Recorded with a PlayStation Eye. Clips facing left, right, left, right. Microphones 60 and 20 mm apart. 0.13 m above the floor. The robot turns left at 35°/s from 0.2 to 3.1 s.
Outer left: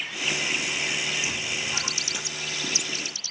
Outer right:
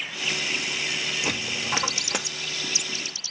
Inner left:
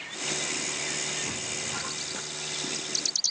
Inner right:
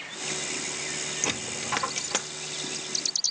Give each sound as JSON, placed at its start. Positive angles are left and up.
{"t": 1.2, "sound": "a dropped coin", "side_deg": -65, "distance_m": 1.2}